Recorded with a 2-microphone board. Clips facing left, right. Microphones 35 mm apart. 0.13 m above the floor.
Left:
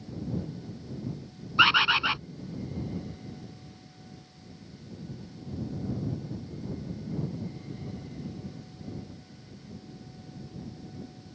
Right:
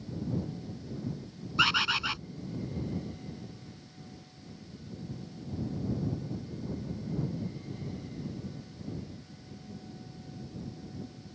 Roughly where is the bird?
Left.